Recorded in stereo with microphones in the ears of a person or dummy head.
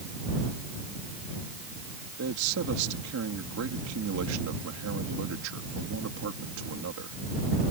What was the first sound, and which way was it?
A man speaking, 80° right.